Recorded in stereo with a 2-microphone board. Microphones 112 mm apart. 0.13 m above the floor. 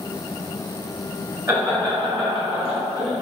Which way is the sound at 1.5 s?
20° right (ahead or behind).